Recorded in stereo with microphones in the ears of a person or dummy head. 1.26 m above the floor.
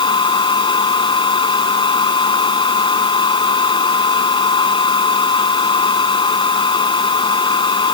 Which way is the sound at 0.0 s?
20° left (ahead or behind).